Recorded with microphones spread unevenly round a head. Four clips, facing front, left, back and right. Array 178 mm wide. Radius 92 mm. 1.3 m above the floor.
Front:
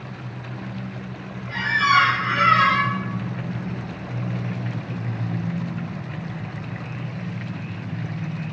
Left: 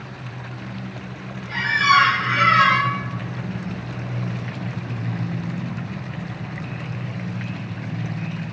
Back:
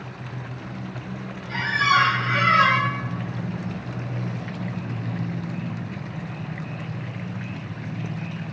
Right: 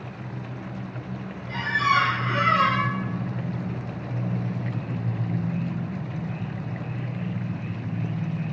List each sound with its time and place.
1.5 s a squeak: 115° right, 4 m